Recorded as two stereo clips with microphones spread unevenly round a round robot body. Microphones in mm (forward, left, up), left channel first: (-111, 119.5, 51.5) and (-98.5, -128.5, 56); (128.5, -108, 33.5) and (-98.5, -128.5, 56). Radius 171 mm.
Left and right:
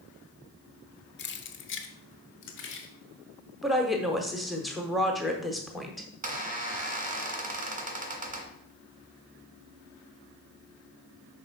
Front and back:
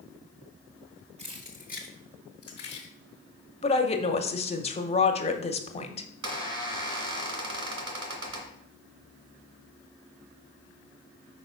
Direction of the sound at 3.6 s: 5° left.